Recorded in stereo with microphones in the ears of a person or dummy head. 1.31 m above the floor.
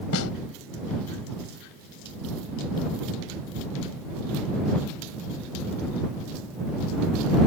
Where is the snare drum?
80° left.